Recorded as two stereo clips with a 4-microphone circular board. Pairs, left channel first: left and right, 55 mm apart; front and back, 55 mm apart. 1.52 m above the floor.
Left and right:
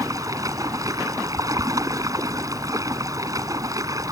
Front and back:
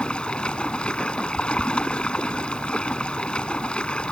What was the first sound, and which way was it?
Running water, 75° right.